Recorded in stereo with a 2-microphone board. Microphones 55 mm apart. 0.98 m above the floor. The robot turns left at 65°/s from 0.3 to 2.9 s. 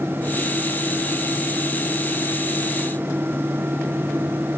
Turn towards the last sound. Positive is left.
No sound to turn to.